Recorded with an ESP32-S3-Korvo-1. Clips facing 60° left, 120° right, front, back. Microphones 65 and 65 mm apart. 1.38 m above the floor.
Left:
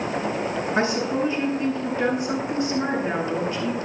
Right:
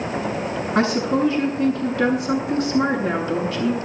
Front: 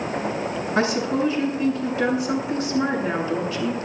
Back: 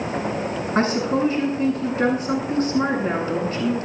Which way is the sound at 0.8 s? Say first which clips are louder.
Right 5 dB, back 1 dB; 130° right.